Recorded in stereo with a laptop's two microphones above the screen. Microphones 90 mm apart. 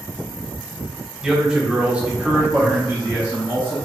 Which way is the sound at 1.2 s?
5° right (ahead or behind).